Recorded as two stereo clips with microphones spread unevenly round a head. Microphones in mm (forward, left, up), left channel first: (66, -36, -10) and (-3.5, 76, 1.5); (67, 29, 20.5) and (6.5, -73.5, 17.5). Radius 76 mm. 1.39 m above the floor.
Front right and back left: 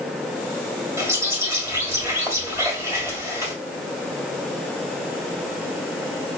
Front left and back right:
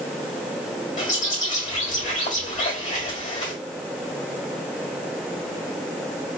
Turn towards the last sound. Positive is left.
turn(degrees=55)